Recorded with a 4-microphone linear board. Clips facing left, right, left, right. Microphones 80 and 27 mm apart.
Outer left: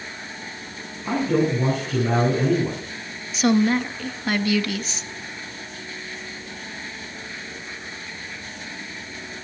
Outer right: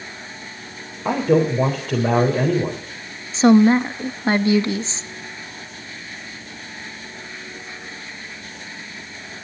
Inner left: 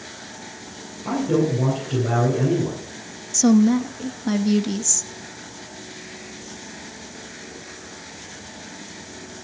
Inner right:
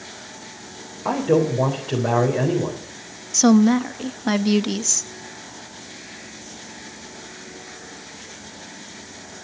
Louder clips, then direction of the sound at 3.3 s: Outer right 6 dB, inner right 1 dB; 30° right (ahead or behind).